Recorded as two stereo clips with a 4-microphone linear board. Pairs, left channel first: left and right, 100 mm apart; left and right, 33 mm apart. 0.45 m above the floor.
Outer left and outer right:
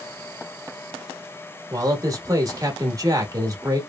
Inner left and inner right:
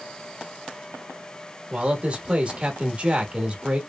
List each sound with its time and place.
1.7 s a man speaking: 35° right (ahead or behind), 1.0 m